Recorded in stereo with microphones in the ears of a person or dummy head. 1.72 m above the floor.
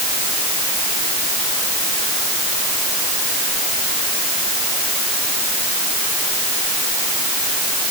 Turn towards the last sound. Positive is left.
No sound to turn to.